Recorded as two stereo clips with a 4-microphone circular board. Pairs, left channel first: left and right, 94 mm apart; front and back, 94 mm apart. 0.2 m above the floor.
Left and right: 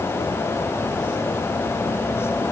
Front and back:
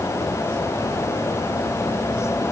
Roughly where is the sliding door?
I don't hear a sliding door.